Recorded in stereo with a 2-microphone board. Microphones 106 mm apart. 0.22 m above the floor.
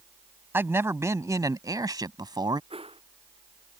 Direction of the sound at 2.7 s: 60° right (ahead or behind).